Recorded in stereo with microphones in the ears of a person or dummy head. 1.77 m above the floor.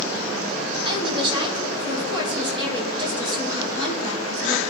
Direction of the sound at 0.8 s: 25° right (ahead or behind).